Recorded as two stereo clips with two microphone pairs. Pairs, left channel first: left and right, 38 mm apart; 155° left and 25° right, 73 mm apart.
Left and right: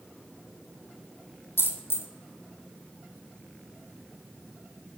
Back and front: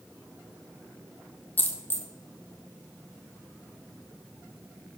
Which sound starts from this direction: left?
A dropped coin, at 1.6 s.